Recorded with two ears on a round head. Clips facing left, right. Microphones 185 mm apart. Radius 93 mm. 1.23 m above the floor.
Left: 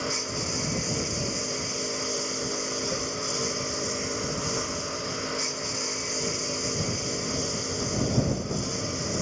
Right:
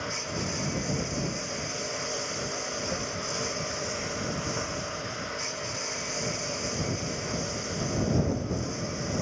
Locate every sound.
0.0 s a lawn mower: 50° left (ahead or behind)